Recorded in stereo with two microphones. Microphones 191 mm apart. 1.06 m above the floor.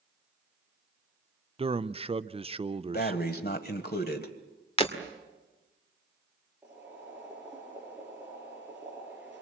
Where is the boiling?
10° right (ahead or behind), 9 m.